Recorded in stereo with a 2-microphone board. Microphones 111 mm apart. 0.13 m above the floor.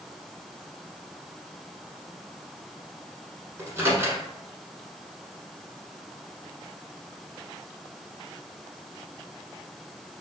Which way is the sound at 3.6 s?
25° right (ahead or behind).